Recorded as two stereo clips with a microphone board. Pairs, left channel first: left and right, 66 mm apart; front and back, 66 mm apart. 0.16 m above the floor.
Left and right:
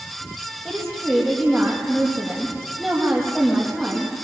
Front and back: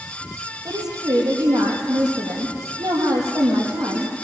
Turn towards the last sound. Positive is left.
turn(degrees=175)